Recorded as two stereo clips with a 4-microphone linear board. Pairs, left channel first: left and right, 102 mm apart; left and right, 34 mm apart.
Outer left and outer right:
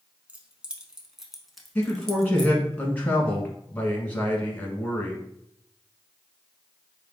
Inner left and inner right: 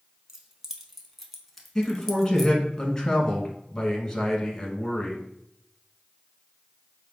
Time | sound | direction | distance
0.3 | keys jangling | 10° right (ahead or behind) | 0.8 m
1.8 | a man speaking | 15° left (ahead or behind) | 1.1 m